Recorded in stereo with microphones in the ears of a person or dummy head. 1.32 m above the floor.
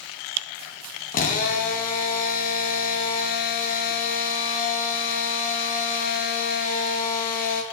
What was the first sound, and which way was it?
A drill, 40° left (ahead or behind).